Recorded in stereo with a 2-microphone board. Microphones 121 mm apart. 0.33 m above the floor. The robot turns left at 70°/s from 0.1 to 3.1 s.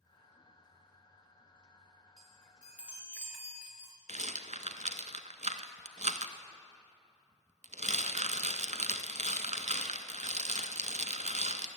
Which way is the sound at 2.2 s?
5° left (ahead or behind).